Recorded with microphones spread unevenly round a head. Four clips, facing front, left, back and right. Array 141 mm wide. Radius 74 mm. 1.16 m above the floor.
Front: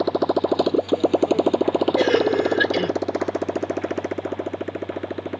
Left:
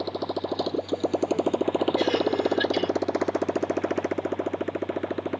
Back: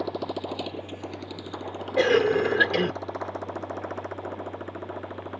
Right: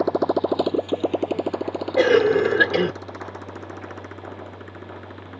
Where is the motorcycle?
45° right; by 5.4 s 60° left.